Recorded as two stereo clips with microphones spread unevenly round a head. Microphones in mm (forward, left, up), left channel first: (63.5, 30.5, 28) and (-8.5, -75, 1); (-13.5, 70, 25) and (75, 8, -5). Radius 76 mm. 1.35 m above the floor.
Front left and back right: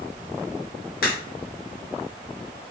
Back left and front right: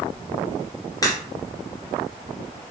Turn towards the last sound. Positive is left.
turn(degrees=90)